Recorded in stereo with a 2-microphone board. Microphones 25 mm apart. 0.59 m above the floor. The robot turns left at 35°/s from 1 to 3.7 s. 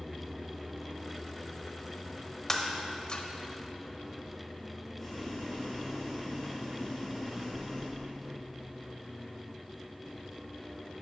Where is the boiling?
20° left (ahead or behind), 2.5 m.